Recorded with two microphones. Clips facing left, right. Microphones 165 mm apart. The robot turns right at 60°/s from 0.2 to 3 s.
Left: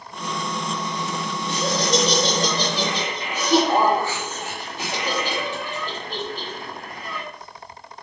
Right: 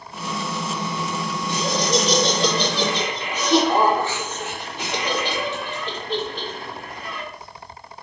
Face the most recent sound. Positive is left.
turn(degrees=165)